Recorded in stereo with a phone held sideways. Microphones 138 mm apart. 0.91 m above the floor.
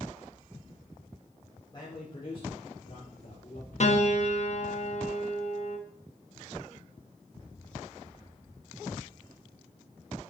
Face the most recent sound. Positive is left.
turn(degrees=55)  # may be behind; listen again after turning